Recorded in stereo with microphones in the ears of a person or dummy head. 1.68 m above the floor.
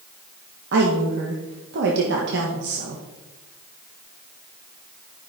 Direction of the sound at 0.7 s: 65° right (ahead or behind).